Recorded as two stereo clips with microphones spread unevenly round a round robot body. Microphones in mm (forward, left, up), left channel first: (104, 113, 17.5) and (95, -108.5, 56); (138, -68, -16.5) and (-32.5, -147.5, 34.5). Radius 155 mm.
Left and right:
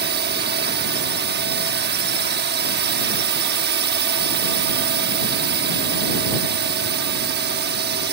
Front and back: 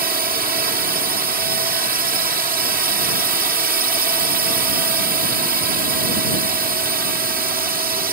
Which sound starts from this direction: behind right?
A drone, at 0.0 s.